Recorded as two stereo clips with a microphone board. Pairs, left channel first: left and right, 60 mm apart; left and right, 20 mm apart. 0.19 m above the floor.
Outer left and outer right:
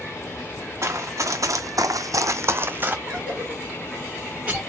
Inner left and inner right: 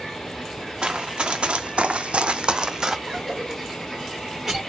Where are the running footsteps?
45° right (ahead or behind), 0.9 m; by 3.0 s 25° right (ahead or behind), 0.7 m.